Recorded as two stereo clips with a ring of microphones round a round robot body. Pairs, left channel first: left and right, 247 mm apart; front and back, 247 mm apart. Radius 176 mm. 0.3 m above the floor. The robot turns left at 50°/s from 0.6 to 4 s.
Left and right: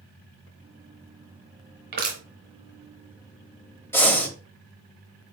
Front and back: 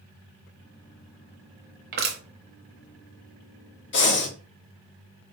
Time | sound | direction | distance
1.9 | crushing | 135° right | 0.9 m
3.9 | breathing | 15° left | 1.4 m